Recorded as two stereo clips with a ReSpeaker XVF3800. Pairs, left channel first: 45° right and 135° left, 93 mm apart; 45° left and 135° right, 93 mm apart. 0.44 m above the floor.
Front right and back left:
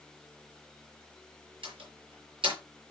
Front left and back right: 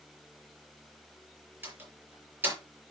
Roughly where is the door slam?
Behind left.